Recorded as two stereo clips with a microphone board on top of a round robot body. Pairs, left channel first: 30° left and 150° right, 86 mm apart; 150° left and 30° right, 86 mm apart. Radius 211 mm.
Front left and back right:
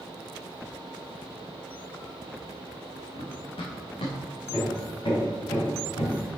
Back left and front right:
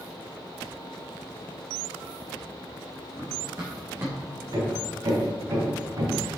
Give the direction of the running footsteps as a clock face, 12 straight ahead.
11 o'clock.